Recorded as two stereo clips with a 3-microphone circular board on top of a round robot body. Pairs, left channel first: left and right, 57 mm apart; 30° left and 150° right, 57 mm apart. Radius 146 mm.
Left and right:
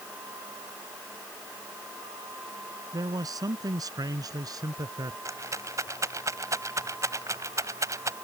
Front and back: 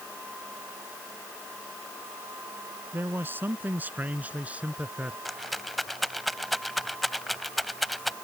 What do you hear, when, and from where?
2.9 s a man speaking: 100° right; by 5.2 s 80° right
5.2 s a rattle: 60° right